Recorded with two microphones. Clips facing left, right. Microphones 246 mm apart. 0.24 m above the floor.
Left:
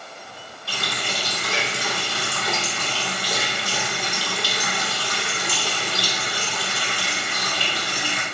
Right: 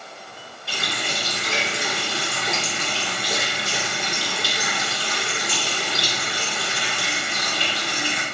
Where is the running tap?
25° right (ahead or behind), 1.1 m.